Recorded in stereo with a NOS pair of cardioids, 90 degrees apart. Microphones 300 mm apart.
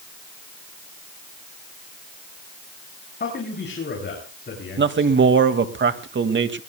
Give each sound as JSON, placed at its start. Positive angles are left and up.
{"t": 3.2, "sound": "a man speaking", "azimuth_deg": 35, "distance_m": 7.5}
{"t": 4.8, "sound": "a man speaking", "azimuth_deg": -40, "distance_m": 2.0}